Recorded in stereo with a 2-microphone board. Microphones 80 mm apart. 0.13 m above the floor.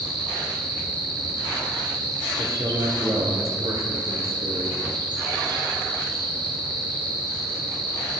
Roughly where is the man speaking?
Right.